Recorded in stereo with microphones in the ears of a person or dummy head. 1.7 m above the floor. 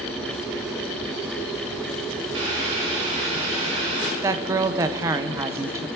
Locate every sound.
2.3 s boiling: 35° right (ahead or behind), 5 m
4.2 s a woman speaking: 20° right (ahead or behind), 0.8 m